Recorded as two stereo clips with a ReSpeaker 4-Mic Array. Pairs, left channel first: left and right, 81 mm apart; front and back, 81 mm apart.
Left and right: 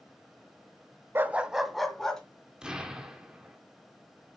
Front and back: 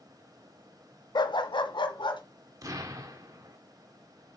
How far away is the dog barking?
About 0.6 m.